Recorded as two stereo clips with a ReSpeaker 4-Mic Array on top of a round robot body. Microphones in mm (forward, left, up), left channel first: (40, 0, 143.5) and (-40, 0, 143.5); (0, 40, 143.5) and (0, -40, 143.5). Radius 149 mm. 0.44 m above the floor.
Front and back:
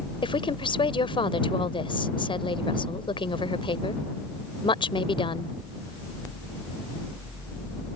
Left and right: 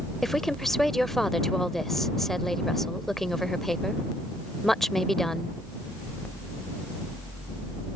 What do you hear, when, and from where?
0.2 s a woman speaking: 5° left